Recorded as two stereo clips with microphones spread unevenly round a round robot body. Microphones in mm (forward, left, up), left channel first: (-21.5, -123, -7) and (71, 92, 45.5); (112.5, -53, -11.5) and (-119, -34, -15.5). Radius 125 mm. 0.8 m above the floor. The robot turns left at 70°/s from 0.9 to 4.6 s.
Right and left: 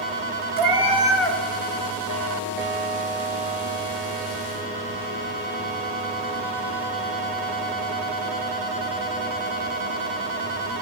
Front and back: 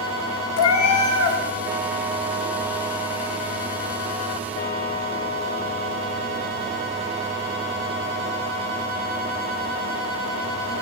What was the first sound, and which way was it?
A cat meowing, 5° left.